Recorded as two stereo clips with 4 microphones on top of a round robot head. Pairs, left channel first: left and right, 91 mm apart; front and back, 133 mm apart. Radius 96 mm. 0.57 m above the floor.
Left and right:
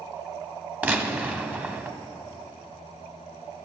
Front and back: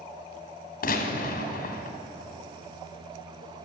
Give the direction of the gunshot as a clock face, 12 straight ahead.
1 o'clock.